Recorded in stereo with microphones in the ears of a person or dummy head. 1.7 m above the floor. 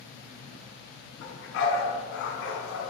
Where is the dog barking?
75° left (ahead or behind), 5 m; by 2.9 s 65° left (ahead or behind), 4.5 m.